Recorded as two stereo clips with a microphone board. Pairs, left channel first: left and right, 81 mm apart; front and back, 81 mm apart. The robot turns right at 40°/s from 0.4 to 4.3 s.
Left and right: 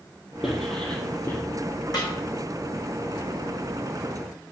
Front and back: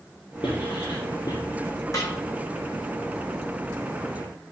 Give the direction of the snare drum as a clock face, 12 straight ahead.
10 o'clock.